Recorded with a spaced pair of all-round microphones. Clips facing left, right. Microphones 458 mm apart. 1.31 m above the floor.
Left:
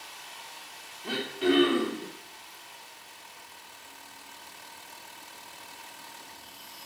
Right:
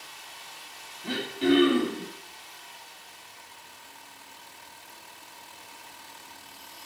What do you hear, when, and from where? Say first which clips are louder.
1.0 s throat clearing: right 2 dB; 35° right (ahead or behind), 3 m